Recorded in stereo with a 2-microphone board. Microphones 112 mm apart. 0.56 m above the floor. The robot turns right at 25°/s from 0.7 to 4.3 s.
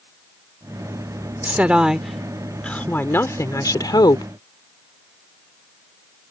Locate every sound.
1.4 s a woman speaking: 20° right; by 4.2 s 50° left